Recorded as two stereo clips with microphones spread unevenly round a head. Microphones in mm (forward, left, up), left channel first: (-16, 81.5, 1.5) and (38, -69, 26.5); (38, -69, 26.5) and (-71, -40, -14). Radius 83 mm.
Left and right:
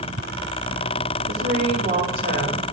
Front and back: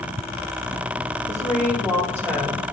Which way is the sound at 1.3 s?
85° right.